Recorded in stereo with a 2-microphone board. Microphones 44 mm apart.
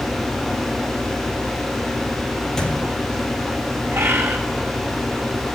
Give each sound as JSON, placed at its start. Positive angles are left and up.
{"t": 2.6, "sound": "a thud", "side_deg": 15, "distance_m": 5.0}
{"t": 3.9, "sound": "a bird", "side_deg": -65, "distance_m": 4.5}